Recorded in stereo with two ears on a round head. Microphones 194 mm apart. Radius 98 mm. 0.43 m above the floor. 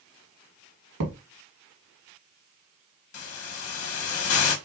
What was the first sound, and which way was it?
A thud, 85° right.